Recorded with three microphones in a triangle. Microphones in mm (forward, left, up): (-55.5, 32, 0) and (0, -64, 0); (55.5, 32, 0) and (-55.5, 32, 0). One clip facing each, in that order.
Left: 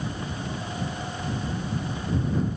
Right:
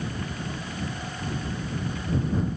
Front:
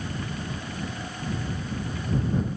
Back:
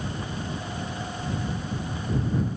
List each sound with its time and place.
Only background noise.